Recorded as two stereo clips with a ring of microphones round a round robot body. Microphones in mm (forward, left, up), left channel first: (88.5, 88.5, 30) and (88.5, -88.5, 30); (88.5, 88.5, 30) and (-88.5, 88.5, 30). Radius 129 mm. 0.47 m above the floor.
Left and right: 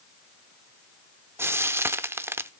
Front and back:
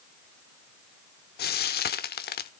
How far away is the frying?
About 0.8 m.